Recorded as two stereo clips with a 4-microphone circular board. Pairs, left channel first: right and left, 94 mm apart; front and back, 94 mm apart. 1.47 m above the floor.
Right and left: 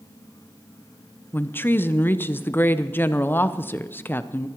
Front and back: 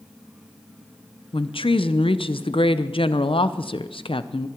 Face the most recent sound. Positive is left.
turn(degrees=-20)